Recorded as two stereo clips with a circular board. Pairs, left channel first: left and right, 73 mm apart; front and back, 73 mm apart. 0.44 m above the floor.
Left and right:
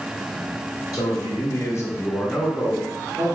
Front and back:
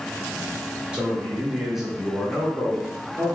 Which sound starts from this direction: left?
A man speaking, at 0.9 s.